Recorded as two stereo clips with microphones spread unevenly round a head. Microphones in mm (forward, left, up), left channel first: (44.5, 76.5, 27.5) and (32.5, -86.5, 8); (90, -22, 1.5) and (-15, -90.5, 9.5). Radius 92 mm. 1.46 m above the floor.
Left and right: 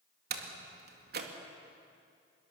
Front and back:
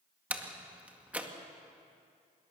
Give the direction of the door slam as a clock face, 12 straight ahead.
2 o'clock.